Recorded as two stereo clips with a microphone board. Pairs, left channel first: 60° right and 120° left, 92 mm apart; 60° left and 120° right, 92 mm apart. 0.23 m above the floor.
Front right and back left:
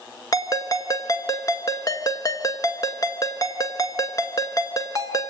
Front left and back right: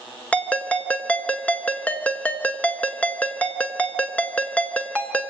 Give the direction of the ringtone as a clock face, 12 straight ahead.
1 o'clock.